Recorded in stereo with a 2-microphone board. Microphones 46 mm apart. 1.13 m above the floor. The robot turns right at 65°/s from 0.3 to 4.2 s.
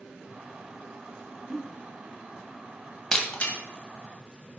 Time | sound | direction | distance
1.5 | a giggle | 5° right (ahead or behind) | 1.3 m
3.1 | breaking glass | 10° left (ahead or behind) | 1.9 m